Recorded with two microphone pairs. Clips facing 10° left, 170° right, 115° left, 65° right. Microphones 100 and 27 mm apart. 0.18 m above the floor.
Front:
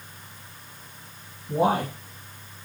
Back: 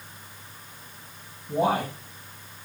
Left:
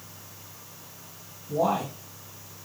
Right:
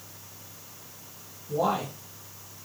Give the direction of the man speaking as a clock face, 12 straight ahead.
1 o'clock.